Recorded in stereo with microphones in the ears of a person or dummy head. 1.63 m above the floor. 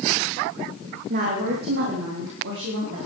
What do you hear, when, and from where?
1.1 s a woman speaking: 45° right (ahead or behind), 3 m; by 3.0 s 75° right (ahead or behind), 5 m